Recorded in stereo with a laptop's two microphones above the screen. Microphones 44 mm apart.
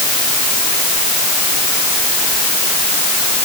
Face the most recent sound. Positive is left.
No sound to turn to.